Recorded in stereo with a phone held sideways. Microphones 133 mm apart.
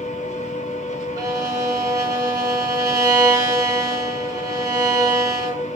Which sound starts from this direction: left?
A machine running, at 0.0 s.